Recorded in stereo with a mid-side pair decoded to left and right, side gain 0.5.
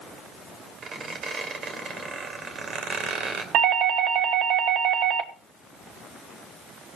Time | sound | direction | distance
0.8 | a squeak | 50° right | 3 m
3.5 | a doorbell | 70° right | 1.2 m